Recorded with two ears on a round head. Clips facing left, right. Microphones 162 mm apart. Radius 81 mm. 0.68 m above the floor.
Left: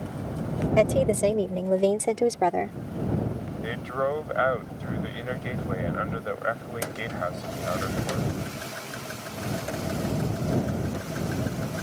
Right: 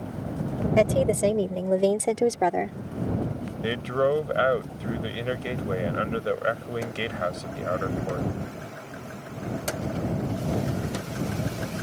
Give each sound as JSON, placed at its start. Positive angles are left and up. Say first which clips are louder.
{"t": 0.8, "sound": "a woman speaking", "louder": "even", "side_deg": -5}
{"t": 3.6, "sound": "a man speaking", "louder": "right 5 dB", "side_deg": -40}